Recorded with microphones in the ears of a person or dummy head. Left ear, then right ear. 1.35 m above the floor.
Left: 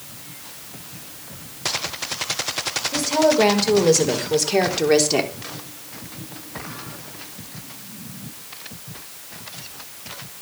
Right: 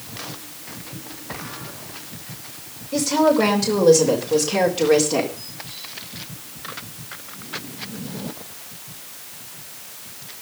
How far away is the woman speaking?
About 6 m.